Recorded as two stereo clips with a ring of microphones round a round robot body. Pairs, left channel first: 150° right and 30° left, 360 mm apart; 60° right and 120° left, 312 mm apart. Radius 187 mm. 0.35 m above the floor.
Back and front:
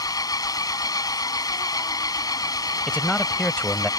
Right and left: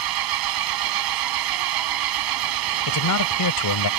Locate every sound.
0.0 s an engine running: 130° left
2.9 s a man speaking: 65° right